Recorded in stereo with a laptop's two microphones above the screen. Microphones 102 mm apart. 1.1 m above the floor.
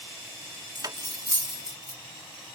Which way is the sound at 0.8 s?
40° right (ahead or behind).